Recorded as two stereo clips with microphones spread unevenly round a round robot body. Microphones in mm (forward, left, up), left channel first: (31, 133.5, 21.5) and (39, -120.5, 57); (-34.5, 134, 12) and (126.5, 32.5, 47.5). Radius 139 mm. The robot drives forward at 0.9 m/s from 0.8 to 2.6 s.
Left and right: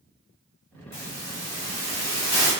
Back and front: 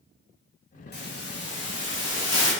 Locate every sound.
0.9 s a hiss: 115° left, 2.5 m; by 2.5 s 140° left, 3.5 m